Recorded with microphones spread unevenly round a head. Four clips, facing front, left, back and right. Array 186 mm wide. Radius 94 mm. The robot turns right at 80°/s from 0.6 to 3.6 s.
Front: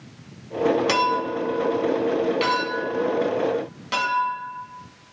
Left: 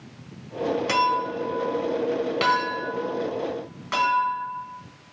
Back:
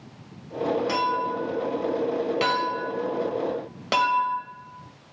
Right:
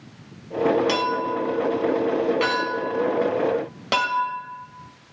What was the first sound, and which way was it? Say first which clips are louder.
A clink: even, front 3 dB; 10° left.